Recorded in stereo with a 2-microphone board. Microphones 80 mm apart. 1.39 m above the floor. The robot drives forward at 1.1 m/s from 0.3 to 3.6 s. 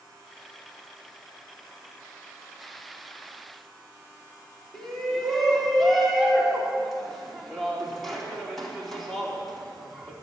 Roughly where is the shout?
Centre.